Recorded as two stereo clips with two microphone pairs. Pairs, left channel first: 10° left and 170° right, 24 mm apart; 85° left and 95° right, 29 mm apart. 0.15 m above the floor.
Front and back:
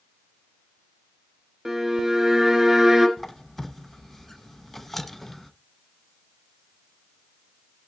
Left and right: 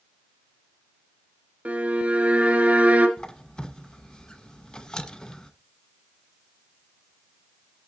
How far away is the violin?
About 2.0 m.